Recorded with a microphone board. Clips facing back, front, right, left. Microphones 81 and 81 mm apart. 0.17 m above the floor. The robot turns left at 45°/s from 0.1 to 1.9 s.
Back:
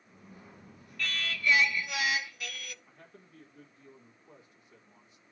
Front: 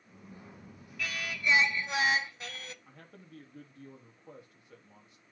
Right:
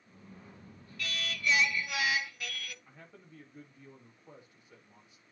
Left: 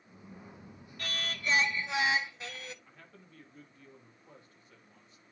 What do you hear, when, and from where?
1.0 s singing: 80° left, 0.9 m; by 2.8 s 40° left, 0.9 m
2.9 s a man speaking: 15° right, 6 m